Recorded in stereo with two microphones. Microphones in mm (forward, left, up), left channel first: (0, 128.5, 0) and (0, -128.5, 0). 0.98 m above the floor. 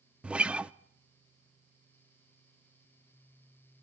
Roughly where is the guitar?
Centre.